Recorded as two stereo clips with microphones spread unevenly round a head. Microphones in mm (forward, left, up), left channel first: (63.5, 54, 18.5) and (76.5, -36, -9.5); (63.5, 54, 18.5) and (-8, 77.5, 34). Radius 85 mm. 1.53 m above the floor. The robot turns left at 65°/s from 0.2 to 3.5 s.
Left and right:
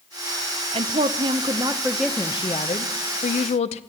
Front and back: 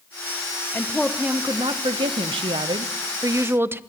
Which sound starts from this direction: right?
A woman speaking, at 0.7 s.